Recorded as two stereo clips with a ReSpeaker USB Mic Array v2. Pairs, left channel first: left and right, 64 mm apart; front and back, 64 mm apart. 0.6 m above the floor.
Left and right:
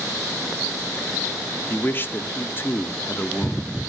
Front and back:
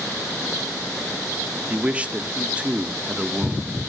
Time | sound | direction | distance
1.7 | a man speaking | 120° left | 1.4 m